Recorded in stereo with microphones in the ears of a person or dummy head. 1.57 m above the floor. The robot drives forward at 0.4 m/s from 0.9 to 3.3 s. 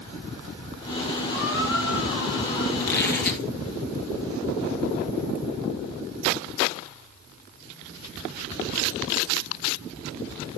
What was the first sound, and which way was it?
A squeak, 60° left (ahead or behind).